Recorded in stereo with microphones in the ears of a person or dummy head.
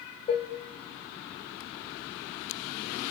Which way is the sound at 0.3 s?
35° left (ahead or behind).